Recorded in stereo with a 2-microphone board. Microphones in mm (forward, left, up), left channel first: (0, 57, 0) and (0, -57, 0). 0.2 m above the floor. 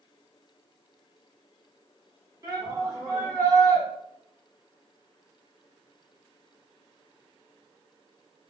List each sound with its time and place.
2.4 s a shout: 30° right (ahead or behind), 1.7 m